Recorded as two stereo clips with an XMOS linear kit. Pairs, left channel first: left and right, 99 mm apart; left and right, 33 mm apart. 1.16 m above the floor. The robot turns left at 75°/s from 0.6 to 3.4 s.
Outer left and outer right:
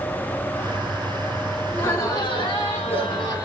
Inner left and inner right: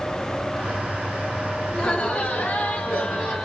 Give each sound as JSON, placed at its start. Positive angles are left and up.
{"t": 1.7, "sound": "laughter", "azimuth_deg": 165, "distance_m": 3.0}